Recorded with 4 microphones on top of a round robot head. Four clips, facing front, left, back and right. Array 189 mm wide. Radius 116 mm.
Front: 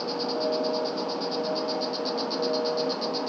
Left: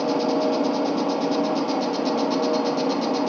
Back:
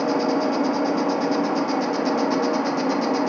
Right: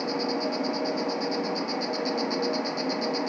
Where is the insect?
150° left, 1.9 m.